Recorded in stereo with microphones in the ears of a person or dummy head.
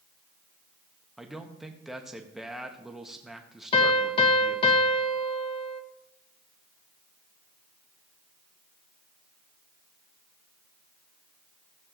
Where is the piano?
25° left (ahead or behind), 0.8 m.